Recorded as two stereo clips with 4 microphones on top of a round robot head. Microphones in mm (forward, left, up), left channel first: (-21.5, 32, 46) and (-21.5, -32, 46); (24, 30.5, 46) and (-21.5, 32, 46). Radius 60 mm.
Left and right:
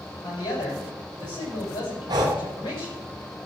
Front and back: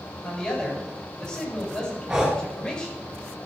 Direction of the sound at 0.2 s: 65° left.